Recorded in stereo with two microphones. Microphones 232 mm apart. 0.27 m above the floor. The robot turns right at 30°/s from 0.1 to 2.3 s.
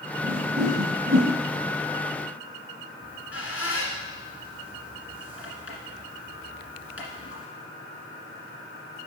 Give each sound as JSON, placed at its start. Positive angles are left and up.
{"t": 0.2, "sound": "a whoosh", "side_deg": -65, "distance_m": 3.0}
{"t": 3.0, "sound": "a squeak", "side_deg": 70, "distance_m": 1.7}